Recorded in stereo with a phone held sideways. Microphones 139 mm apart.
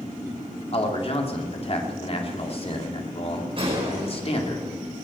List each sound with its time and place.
0.7 s a man speaking: 45° left (ahead or behind), 2.5 m
3.6 s a gunshot: 40° right (ahead or behind), 4.5 m